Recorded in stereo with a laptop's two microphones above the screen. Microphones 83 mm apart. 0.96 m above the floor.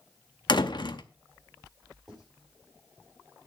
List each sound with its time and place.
0.5 s a door slam: 60° left (ahead or behind), 0.7 m
2.1 s writing: centre (ahead or behind), 7 m